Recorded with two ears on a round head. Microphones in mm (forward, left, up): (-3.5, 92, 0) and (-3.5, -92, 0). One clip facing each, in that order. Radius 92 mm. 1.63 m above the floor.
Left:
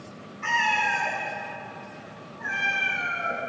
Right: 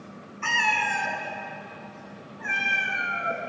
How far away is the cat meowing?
About 3 m.